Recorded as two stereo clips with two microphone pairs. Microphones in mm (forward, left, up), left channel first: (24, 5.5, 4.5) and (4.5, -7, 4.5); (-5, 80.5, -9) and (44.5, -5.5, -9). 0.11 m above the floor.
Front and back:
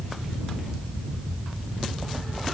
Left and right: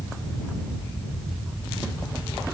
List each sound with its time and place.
Only background noise.